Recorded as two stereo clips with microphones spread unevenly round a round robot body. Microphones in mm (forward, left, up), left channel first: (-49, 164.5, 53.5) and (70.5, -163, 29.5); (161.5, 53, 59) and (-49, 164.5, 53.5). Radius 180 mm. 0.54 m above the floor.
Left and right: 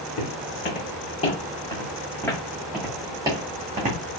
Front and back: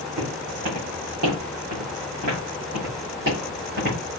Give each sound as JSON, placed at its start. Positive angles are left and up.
{"t": 0.2, "sound": "footsteps", "azimuth_deg": 170, "distance_m": 2.5}